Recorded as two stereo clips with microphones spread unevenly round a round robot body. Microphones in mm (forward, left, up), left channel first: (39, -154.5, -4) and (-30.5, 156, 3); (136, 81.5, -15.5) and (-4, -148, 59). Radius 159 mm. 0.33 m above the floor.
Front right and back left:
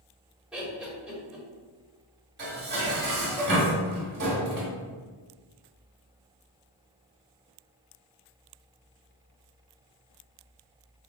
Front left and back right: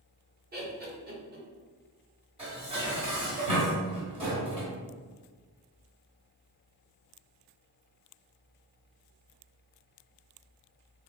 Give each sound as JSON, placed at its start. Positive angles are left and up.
{"t": 0.5, "sound": "laughter", "azimuth_deg": -170, "distance_m": 1.0}
{"t": 2.4, "sound": "dishes clattering", "azimuth_deg": 160, "distance_m": 1.3}